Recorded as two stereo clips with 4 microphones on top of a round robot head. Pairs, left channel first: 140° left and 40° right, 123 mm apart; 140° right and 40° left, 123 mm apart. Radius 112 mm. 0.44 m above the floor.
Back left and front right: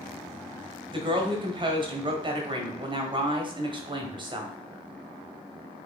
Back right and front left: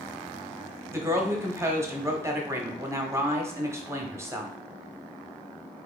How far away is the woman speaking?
About 1.0 m.